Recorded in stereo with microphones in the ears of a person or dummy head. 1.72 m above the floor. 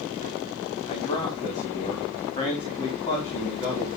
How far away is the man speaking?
About 3 m.